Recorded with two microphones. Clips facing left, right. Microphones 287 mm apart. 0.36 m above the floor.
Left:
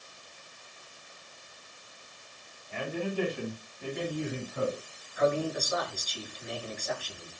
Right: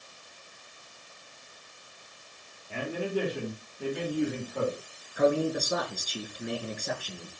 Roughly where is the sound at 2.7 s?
Right.